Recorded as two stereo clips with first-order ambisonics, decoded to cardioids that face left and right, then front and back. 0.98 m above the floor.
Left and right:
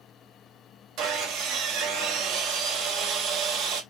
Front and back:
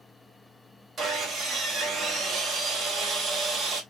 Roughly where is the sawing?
Behind right.